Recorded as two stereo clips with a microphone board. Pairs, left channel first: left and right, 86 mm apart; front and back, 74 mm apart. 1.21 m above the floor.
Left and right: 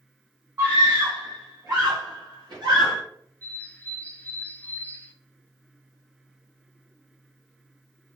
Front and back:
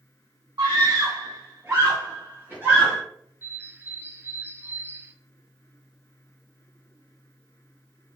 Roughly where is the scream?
Behind.